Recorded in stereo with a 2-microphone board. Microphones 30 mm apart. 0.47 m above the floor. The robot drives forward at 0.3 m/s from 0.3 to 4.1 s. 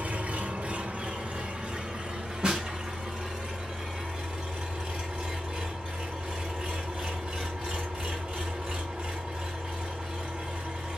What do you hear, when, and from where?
0.0 s an engine running: 60° right (ahead or behind), 0.7 m; by 11.0 s 25° right (ahead or behind), 1.5 m
2.4 s a snare drum: 25° right (ahead or behind), 1.1 m; by 2.7 s 20° right (ahead or behind), 1.2 m